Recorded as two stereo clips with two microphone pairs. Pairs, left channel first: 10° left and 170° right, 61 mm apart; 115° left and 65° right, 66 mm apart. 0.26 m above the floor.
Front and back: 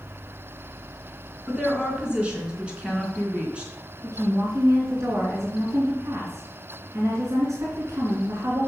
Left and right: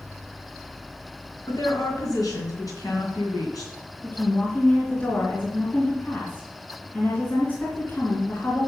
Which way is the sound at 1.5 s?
115° left.